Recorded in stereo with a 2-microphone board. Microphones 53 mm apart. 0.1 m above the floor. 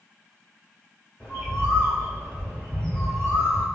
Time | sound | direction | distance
1.2 | a bird | 20° left (ahead or behind) | 1.8 m